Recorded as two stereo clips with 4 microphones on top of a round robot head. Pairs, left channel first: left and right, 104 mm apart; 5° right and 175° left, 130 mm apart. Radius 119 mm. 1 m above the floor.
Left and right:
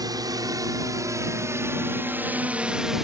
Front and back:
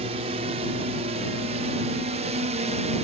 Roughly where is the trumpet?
No trumpet in this recording.